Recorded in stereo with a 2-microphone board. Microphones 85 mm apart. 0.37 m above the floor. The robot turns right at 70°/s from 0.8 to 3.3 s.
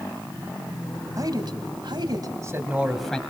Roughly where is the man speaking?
Behind right.